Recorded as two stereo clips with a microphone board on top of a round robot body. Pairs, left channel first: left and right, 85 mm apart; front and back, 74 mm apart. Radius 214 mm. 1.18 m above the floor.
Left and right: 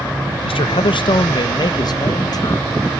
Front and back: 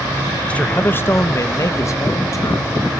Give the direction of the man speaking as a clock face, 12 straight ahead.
9 o'clock.